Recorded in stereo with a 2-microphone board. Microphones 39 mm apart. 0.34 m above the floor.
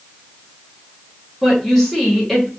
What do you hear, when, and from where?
1.4 s a woman speaking: 10° left (ahead or behind), 1.3 m